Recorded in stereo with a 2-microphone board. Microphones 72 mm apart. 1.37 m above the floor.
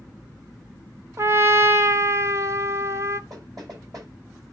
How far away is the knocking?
About 9.5 m.